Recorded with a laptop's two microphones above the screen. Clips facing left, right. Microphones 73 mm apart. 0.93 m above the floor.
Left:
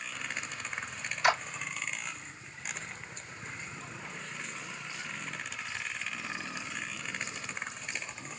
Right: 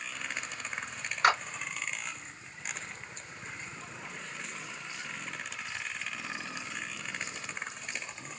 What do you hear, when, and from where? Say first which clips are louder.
1.2 s a clap: right 2 dB; 50° right (ahead or behind), 2.5 m